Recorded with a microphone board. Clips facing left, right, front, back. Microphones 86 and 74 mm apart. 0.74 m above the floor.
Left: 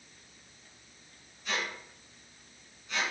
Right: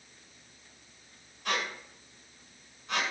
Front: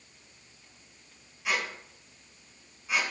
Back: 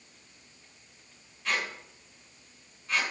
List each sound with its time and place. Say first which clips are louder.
1.4 s a squeak: right 2 dB, front 1 dB; 80° right, 2.5 m